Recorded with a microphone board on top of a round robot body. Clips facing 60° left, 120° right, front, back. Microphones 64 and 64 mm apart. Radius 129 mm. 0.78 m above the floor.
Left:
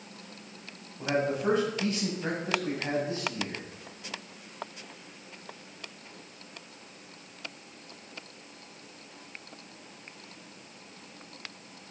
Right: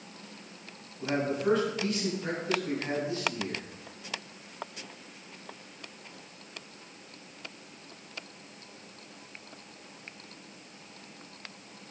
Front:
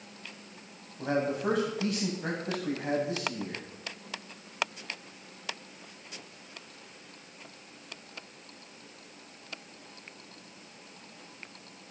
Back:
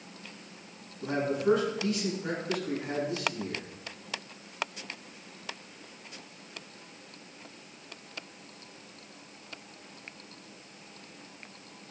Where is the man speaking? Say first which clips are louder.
Left 1 dB, even; straight ahead, 7 m.